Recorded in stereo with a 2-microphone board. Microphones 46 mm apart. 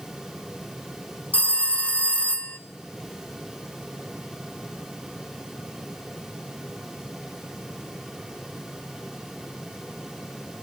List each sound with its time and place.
1.3 s a phone ringing: 30° left (ahead or behind), 0.6 m